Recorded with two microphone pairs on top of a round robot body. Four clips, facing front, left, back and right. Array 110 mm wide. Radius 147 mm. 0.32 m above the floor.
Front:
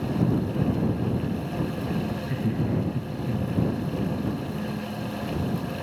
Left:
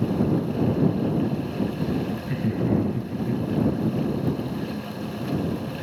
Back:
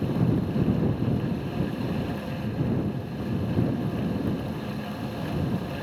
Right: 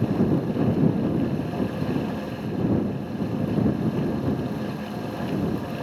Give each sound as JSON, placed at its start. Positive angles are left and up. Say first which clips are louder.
{"t": 2.2, "sound": "laughter", "louder": "left 1 dB, front 2 dB", "azimuth_deg": 70}